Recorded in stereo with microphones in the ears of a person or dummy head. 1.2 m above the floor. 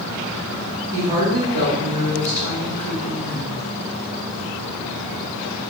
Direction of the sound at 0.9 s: 15° right (ahead or behind).